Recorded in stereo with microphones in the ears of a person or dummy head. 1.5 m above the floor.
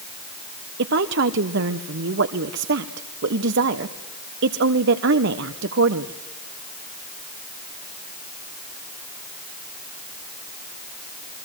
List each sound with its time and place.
0.8 s a woman speaking: 65° right (ahead or behind), 1.1 m